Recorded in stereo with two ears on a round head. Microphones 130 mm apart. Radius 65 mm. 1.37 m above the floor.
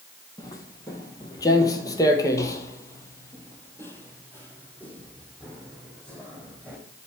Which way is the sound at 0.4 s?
20° left (ahead or behind).